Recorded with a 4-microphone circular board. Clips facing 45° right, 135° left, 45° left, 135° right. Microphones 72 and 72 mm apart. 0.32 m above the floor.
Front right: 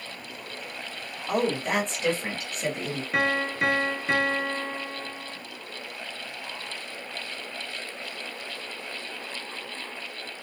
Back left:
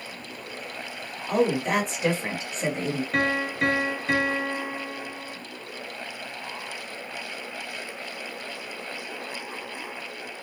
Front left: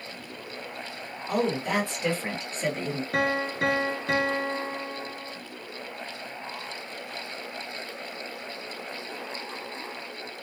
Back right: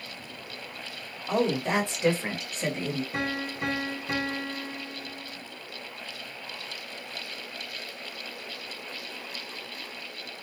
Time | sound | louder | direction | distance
1.3 | a woman speaking | back left 3 dB, back right 1 dB | 95° right | 1.1 m
3.1 | a piano | front right 1 dB, front left 5 dB | 45° left | 0.7 m